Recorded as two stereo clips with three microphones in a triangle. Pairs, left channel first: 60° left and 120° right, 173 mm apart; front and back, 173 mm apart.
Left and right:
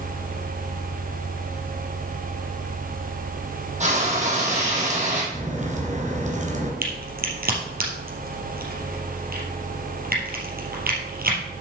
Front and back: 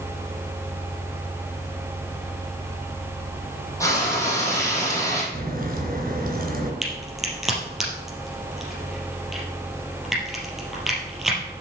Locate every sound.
3.8 s frying: 70° right, 4.5 m
5.3 s a crack: 155° right, 3 m
6.8 s a crack: 90° right, 3.5 m